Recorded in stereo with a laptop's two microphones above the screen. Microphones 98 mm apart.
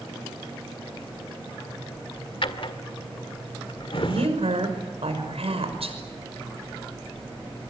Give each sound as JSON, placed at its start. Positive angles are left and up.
{"t": 2.4, "sound": "a drawer", "side_deg": 60, "distance_m": 1.7}
{"t": 4.0, "sound": "a woman speaking", "side_deg": -80, "distance_m": 5.5}